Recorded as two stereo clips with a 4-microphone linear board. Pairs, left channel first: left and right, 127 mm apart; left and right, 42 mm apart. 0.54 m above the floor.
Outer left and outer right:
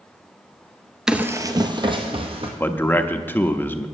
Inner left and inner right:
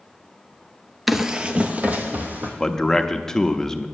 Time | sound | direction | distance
1.1 | running footsteps | 5° right (ahead or behind) | 0.6 m
2.6 | a man speaking | 15° left (ahead or behind) | 0.6 m